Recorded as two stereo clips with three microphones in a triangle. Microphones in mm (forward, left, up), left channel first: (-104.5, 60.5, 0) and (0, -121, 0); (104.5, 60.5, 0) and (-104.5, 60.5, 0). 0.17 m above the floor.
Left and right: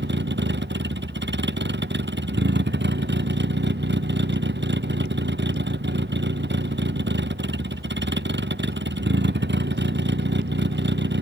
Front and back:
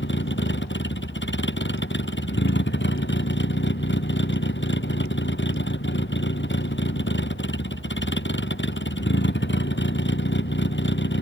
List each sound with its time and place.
0.0 s a vehicle: 30° right